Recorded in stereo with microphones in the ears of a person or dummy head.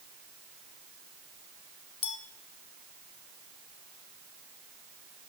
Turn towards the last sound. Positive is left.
turn(degrees=30)  # may be behind; listen again after turning